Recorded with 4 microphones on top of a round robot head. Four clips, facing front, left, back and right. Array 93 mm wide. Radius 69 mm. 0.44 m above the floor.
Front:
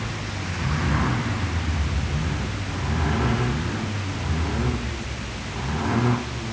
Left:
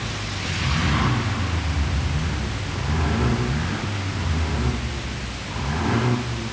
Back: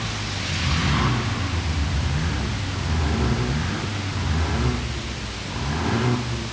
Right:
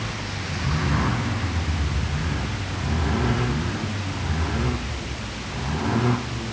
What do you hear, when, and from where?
Only background noise.